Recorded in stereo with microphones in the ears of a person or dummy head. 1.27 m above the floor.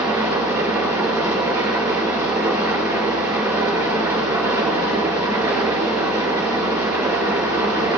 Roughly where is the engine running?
Centre.